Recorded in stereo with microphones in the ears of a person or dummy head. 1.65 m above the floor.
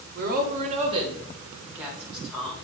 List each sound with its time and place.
0.1 s a woman speaking: 55° right (ahead or behind), 1.7 m; by 2.5 s centre (ahead or behind), 2.5 m